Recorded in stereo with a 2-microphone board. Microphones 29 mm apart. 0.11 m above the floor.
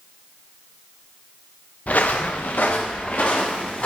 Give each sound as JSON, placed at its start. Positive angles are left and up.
{"t": 1.9, "sound": "footsteps", "side_deg": 65, "distance_m": 0.9}